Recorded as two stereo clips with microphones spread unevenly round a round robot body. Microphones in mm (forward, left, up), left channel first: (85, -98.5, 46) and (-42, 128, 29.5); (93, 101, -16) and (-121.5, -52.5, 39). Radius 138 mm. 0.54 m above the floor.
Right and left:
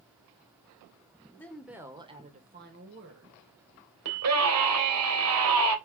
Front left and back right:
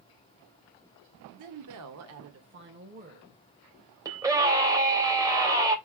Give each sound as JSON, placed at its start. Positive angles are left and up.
{"t": 1.4, "sound": "a woman speaking", "azimuth_deg": -145, "distance_m": 1.8}
{"t": 4.0, "sound": "a scream", "azimuth_deg": 135, "distance_m": 3.0}